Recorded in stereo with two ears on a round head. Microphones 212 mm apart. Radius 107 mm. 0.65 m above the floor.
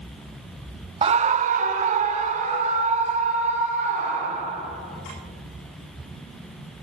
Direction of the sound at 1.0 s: 25° right (ahead or behind).